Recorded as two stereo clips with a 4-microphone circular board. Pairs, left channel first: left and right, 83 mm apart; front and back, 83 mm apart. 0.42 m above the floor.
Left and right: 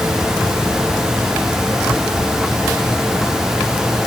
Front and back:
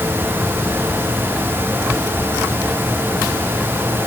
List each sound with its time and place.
Only background noise.